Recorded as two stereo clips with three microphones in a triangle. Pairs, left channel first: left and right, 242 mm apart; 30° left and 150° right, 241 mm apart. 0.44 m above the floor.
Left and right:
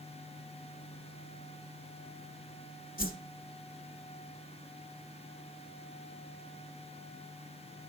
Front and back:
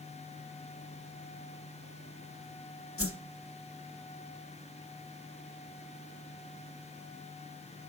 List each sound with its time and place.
3.0 s a whoosh: 45° left, 0.7 m